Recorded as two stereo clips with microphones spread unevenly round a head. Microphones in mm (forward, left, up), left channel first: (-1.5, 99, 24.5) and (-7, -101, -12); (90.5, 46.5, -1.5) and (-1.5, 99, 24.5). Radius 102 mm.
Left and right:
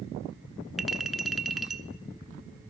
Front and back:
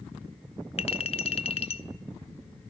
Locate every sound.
0.8 s a clink: 5° left, 1.0 m